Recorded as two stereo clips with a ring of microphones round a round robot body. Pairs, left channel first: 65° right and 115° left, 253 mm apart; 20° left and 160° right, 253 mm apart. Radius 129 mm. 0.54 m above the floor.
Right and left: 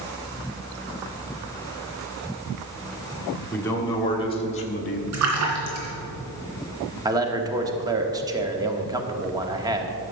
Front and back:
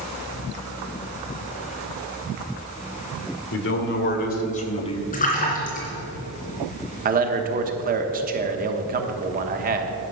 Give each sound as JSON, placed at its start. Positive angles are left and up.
{"t": 3.5, "sound": "a man speaking", "azimuth_deg": 15, "distance_m": 1.7}
{"t": 5.1, "sound": "a splash", "azimuth_deg": 85, "distance_m": 2.5}
{"t": 7.0, "sound": "a man speaking", "azimuth_deg": 180, "distance_m": 1.1}